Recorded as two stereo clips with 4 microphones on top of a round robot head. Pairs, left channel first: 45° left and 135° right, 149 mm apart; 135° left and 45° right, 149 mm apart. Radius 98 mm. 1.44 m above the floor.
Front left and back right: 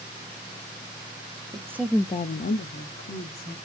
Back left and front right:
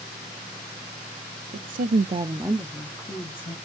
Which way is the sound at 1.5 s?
75° right.